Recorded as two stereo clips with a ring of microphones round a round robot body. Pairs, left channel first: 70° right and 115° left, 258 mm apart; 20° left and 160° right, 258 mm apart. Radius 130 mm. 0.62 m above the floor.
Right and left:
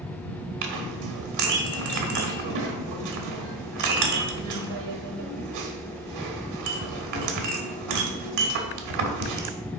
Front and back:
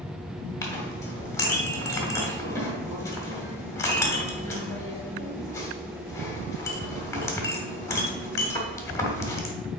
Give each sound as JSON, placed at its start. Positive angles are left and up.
{"t": 0.6, "sound": "a clink", "azimuth_deg": 100, "distance_m": 1.1}